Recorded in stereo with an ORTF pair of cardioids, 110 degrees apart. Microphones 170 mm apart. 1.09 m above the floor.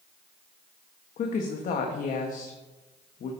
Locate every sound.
1.2 s a woman speaking: 50° left, 1.2 m